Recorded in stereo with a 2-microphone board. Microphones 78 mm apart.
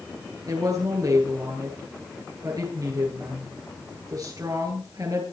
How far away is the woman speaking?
About 10 m.